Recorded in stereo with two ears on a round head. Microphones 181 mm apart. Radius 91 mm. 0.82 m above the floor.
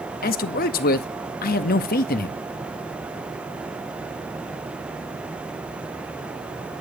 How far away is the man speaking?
About 0.8 m.